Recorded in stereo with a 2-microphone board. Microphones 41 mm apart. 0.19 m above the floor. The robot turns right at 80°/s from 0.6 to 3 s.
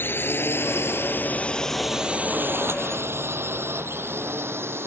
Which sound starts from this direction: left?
A drone, at 0.0 s.